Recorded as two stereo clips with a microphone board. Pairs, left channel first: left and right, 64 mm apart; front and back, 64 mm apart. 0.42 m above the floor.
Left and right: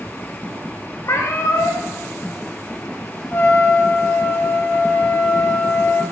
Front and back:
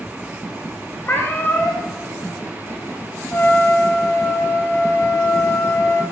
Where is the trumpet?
45° left, 2 m.